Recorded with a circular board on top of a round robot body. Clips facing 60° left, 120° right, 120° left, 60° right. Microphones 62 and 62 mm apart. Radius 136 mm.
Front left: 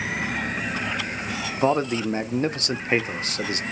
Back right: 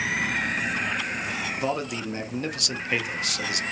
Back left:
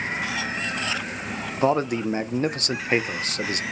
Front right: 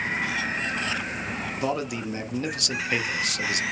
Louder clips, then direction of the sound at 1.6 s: Front left 10 dB, back left 8 dB; 95° left.